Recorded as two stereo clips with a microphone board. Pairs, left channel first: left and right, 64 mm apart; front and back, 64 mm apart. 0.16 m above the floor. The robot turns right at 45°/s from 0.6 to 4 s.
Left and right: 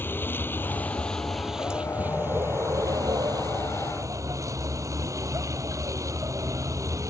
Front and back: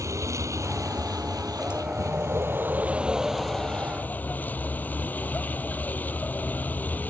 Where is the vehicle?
145° left; by 7.1 s 60° right.